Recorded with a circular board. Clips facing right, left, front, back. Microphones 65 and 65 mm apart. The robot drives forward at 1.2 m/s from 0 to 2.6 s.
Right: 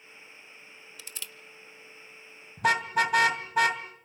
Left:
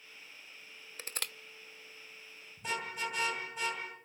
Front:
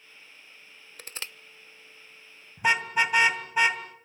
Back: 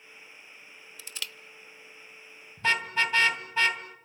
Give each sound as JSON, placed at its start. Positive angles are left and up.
{"t": 1.0, "sound": "crushing", "azimuth_deg": 40, "distance_m": 0.8}
{"t": 2.6, "sound": "a car horn", "azimuth_deg": -75, "distance_m": 2.5}